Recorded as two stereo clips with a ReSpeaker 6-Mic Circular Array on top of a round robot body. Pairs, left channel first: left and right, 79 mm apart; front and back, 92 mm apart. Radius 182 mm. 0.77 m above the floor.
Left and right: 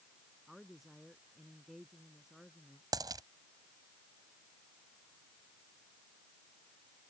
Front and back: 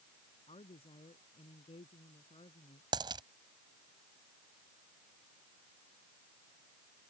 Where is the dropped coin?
135° right.